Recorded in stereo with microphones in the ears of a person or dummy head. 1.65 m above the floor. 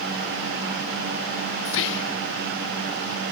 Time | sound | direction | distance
1.6 | whispering | 65° left (ahead or behind) | 0.6 m